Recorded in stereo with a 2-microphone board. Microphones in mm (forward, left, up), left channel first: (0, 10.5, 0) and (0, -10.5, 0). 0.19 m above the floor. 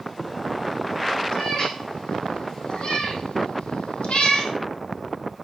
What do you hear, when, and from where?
1.3 s a cat meowing: 35° left (ahead or behind), 4 m; by 4.5 s 65° left (ahead or behind), 2.5 m